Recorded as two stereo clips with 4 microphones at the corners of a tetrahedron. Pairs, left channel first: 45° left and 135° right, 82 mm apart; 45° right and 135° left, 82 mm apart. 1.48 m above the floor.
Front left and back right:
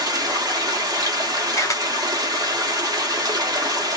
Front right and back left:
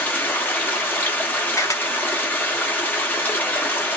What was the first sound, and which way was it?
Running water, 110° right.